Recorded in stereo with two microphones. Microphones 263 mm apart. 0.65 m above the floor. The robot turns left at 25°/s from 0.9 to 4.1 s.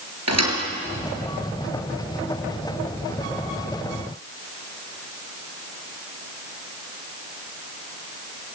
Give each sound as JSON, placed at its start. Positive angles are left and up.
{"t": 0.3, "sound": "a thud", "side_deg": -75, "distance_m": 5.0}